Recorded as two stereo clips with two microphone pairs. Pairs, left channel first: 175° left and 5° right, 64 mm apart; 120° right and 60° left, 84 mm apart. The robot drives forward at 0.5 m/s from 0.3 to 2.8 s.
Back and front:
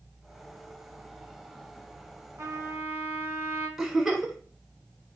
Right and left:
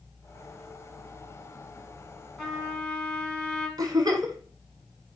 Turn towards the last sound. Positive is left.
turn(degrees=80)